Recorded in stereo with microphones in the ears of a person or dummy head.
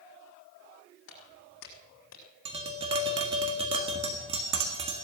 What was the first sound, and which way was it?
Footsteps, 70° left (ahead or behind).